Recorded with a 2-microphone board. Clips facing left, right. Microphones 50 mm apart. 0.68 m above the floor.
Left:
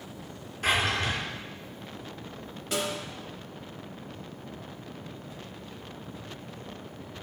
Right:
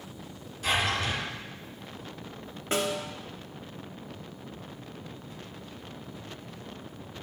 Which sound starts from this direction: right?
A snare drum, at 2.7 s.